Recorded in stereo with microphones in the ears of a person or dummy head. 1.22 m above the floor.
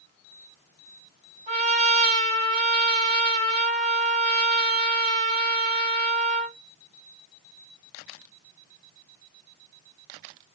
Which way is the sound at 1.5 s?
35° right (ahead or behind).